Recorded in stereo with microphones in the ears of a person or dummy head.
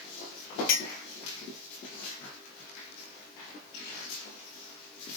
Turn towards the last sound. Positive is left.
turn(degrees=55)  # may be behind; listen again after turning